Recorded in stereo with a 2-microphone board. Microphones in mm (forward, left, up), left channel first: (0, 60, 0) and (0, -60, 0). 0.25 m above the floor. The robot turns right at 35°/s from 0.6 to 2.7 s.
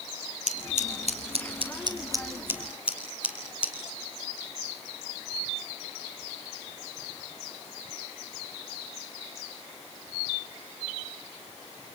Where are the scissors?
80° right, 5 m; by 3.7 s 10° right (ahead or behind), 5 m.